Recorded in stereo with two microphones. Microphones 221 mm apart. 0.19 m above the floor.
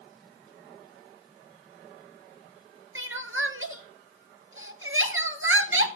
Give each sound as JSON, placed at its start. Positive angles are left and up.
{"t": 3.0, "sound": "crying", "side_deg": -70, "distance_m": 1.5}